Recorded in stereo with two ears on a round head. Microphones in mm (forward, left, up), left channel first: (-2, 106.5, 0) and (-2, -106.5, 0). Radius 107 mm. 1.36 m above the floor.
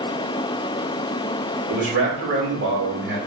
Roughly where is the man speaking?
Right.